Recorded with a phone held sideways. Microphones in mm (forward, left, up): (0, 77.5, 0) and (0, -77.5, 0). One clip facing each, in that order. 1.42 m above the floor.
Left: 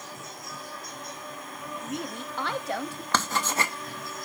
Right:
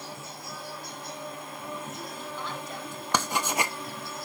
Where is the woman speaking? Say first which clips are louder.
Left 4 dB; 70° left (ahead or behind), 0.6 m.